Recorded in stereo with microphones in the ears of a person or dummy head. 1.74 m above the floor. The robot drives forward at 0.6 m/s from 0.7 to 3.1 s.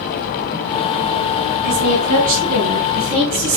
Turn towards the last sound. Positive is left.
turn(degrees=-40)  # may be behind; listen again after turning